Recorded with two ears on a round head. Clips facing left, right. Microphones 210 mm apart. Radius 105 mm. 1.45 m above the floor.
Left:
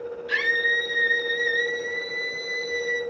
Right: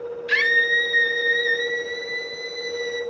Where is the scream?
35° right (ahead or behind), 5.5 m; by 3.0 s 5° right (ahead or behind), 5.5 m.